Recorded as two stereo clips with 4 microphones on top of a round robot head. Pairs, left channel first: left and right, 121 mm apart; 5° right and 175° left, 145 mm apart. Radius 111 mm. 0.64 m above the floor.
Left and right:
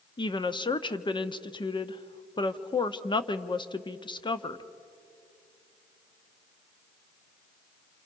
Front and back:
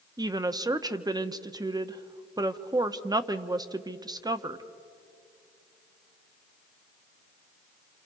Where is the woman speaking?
125° left, 1.0 m.